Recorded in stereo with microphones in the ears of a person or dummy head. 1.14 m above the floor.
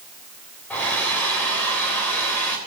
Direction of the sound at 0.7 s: 10° left (ahead or behind).